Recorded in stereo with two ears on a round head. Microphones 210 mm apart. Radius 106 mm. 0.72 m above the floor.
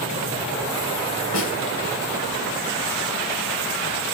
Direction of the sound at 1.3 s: 55° left (ahead or behind).